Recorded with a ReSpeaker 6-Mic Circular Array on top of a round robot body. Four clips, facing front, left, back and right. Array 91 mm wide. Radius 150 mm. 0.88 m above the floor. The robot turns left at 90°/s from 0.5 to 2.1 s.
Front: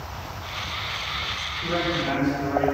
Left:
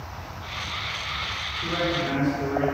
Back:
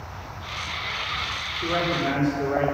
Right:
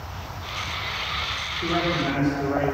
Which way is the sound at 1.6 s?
135° right.